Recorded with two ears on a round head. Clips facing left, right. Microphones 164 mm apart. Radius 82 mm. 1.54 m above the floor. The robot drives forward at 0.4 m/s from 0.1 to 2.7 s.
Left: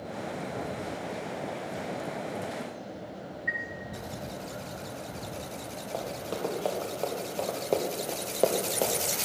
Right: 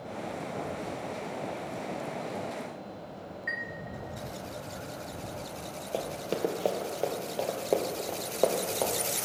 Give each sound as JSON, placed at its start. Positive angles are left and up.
{"t": 3.5, "sound": "a chime", "side_deg": -55, "distance_m": 1.5}
{"t": 5.9, "sound": "running footsteps", "side_deg": -35, "distance_m": 1.9}